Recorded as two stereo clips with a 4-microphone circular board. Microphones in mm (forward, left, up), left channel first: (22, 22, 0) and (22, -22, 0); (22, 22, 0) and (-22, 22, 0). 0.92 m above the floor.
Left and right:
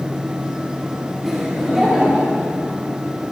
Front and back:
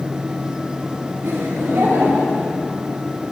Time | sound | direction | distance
1.2 | laughter | straight behind | 3 m